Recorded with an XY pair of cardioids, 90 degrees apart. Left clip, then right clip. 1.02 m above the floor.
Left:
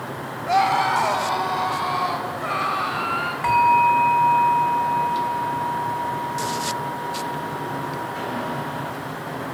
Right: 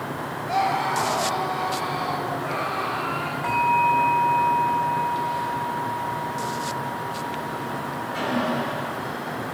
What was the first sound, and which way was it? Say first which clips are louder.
A scream: left 5 dB; 65° left.